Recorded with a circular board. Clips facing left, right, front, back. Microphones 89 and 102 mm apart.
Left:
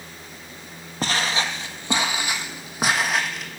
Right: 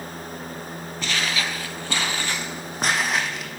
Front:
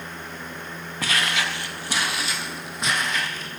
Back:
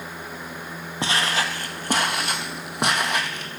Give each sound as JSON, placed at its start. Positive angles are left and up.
{"t": 1.0, "sound": "footsteps", "azimuth_deg": 125, "distance_m": 0.9}